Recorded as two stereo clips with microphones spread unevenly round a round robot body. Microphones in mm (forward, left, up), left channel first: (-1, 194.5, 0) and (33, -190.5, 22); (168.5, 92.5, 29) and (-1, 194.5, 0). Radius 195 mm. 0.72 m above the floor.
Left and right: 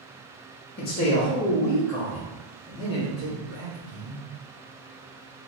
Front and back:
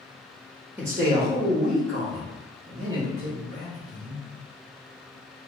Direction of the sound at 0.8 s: 95° left.